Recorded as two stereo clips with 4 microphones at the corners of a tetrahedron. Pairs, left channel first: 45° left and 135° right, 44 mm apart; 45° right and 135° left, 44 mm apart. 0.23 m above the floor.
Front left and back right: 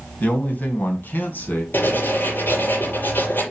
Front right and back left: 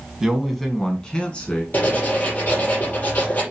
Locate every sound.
0.2 s a man speaking: 55° left, 1.9 m; by 1.6 s 10° left, 3 m
1.7 s writing: 5° left, 5.5 m